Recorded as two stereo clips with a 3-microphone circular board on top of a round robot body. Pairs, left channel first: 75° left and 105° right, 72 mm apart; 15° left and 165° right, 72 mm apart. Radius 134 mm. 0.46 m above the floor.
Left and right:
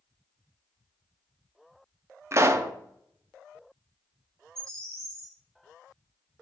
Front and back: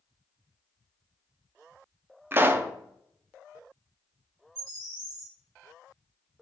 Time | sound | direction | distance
2.3 | a pop | 120° right | 0.8 m
4.5 | a bird | 160° left | 2.5 m